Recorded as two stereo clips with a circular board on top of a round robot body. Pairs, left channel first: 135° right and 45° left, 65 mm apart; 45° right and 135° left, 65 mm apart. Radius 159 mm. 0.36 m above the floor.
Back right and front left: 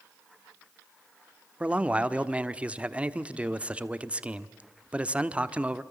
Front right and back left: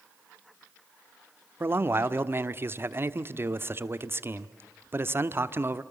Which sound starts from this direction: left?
A man speaking, at 1.6 s.